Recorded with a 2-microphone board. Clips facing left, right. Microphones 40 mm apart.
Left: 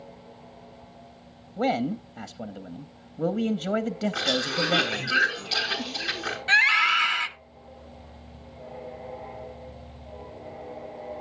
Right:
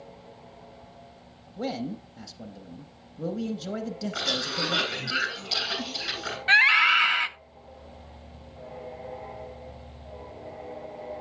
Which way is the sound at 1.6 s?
45° left (ahead or behind).